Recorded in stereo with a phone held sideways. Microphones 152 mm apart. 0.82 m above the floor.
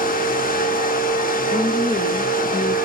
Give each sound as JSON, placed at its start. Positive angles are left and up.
{"t": 0.0, "sound": "a fan", "side_deg": 70, "distance_m": 1.2}
{"t": 1.5, "sound": "a woman speaking", "side_deg": 45, "distance_m": 0.9}